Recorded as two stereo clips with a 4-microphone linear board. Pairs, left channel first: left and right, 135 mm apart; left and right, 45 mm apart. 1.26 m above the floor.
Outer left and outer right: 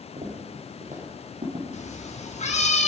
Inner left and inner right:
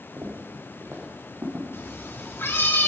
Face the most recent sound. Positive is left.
turn(degrees=55)  # may be behind; listen again after turning